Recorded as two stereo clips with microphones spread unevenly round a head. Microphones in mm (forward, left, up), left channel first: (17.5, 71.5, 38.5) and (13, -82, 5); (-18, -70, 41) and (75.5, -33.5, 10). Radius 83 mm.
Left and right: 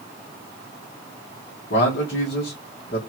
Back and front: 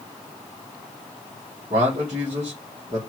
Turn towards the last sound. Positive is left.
turn(degrees=60)